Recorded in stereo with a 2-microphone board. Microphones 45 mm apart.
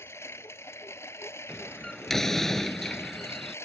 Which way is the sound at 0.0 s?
80° left.